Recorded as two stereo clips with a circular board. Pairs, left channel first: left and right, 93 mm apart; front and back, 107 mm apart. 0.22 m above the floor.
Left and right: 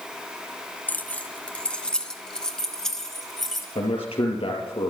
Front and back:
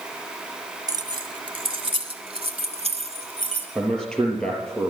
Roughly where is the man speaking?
Left.